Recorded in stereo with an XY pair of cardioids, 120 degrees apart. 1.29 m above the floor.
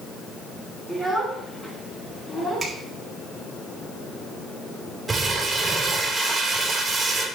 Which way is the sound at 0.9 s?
10° left.